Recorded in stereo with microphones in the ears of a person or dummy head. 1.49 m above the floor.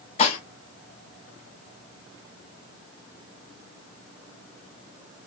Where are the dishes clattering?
40° left (ahead or behind), 1.0 m.